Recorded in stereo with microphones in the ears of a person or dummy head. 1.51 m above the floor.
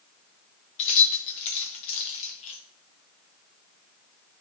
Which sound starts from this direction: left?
Keys jangling, at 0.8 s.